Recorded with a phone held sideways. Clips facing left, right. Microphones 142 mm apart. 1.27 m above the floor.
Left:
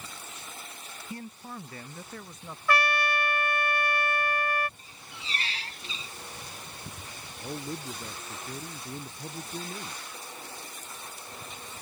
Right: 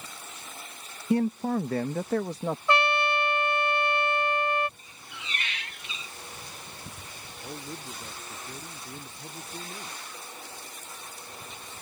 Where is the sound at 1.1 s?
70° right (ahead or behind); by 2.6 s 85° right.